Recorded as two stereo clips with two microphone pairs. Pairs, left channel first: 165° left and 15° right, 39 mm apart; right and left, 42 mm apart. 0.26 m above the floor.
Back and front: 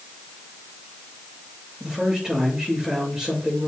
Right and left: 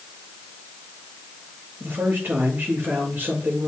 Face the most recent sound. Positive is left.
turn(degrees=55)